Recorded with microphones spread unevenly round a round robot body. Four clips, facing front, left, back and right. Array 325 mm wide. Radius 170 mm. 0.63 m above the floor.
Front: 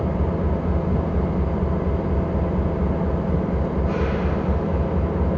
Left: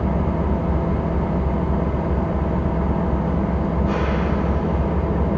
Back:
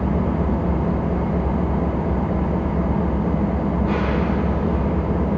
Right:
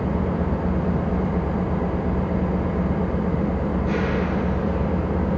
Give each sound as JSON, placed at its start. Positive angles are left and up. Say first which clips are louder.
{"t": 0.0, "sound": "an engine running", "louder": "left 1 dB, back 3 dB", "azimuth_deg": 175, "distance_m": 3.0}